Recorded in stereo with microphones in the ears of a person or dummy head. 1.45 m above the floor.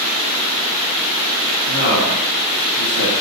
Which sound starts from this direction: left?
A man speaking, at 1.6 s.